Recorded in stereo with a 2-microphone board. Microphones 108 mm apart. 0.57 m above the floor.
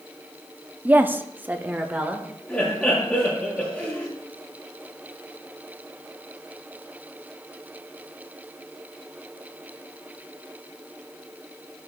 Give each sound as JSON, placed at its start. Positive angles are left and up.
{"t": 0.8, "sound": "a woman speaking", "side_deg": -15, "distance_m": 0.6}
{"t": 2.5, "sound": "laughter", "side_deg": 5, "distance_m": 6.5}